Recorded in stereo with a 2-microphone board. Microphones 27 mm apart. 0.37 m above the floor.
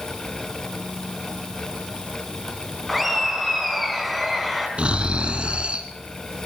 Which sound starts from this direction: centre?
Laughter, at 2.9 s.